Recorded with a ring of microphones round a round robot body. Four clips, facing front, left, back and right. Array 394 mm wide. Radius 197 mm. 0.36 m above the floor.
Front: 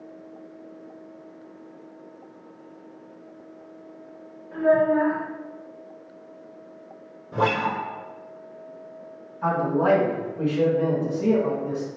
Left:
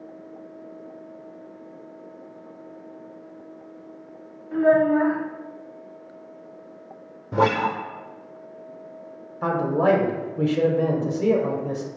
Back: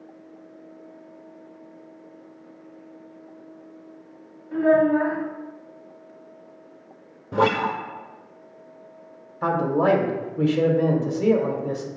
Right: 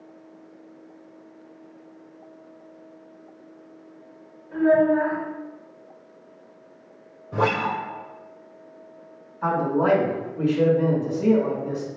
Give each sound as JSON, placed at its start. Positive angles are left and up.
{"t": 4.5, "sound": "a child speaking", "azimuth_deg": 110, "distance_m": 1.3}
{"t": 7.3, "sound": "a guitar", "azimuth_deg": 130, "distance_m": 0.6}
{"t": 9.4, "sound": "a man speaking", "azimuth_deg": 135, "distance_m": 1.2}